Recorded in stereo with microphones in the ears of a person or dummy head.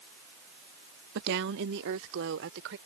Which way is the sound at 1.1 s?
60° right (ahead or behind).